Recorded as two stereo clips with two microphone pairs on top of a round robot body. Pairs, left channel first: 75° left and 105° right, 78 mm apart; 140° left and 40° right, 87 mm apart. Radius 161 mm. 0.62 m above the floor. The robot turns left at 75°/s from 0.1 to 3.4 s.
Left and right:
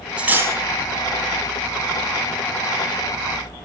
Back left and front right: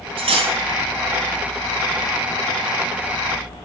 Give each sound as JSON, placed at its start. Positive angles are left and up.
{"t": 0.2, "sound": "cutlery clinking", "azimuth_deg": -25, "distance_m": 3.5}